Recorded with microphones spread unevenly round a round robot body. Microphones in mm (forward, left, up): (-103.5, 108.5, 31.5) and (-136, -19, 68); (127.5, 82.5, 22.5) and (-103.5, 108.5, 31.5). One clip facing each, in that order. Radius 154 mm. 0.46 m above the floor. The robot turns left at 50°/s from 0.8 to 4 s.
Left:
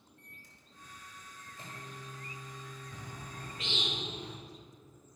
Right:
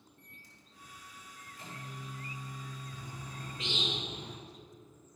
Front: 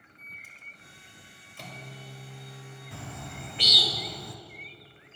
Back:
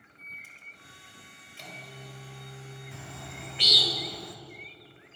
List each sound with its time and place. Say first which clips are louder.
0.2 s a microwave: even, even; 60° left, 1.9 m; by 3.9 s 95° right, 1.9 m
2.9 s a bird: even, front 6 dB; 25° left, 0.7 m; by 4.4 s 30° right, 0.7 m